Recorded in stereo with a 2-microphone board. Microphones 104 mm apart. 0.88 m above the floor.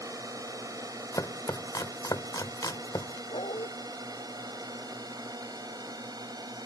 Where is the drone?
35° right (ahead or behind); by 6.7 s 40° right (ahead or behind).